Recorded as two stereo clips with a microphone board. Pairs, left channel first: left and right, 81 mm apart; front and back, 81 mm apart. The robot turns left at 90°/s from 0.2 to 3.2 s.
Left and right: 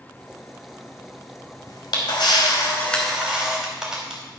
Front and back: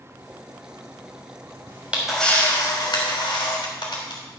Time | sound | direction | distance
1.7 | a camera shutter | 130° left | 3.5 m